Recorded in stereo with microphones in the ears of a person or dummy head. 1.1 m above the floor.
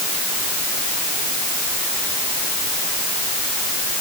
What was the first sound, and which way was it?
Only background noise.